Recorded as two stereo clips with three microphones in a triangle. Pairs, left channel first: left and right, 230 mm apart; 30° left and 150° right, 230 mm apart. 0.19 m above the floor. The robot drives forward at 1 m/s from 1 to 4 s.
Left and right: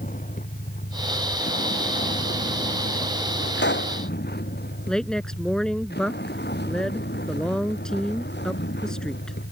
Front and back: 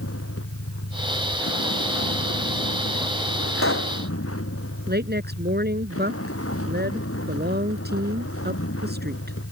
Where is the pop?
50° left.